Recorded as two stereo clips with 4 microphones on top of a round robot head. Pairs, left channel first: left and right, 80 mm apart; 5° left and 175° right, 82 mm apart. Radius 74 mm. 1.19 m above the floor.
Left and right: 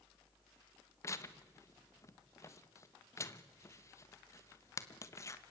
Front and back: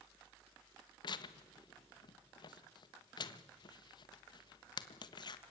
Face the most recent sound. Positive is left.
turn(degrees=35)